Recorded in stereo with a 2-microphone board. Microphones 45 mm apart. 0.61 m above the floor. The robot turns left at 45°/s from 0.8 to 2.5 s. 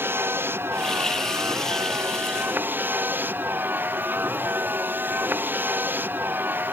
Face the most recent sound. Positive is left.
turn(degrees=-130)